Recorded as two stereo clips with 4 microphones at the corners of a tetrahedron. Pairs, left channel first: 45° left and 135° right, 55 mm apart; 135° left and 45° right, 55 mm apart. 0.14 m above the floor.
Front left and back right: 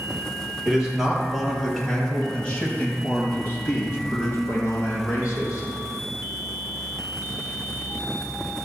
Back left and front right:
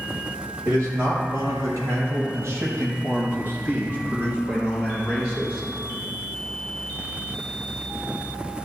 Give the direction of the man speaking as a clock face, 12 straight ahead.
2 o'clock.